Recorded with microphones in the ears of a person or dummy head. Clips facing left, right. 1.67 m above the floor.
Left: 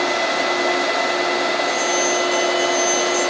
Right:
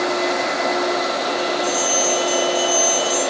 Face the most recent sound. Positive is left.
turn(degrees=-20)  # may be behind; listen again after turning